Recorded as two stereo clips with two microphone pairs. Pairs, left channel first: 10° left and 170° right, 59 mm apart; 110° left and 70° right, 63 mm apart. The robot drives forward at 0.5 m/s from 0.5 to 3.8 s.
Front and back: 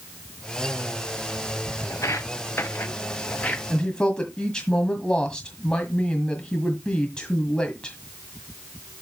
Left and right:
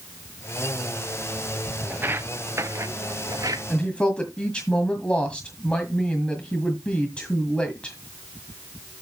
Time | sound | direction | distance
1.9 | footsteps | 15° right | 1.7 m
3.7 | a woman speaking | 60° left | 1.7 m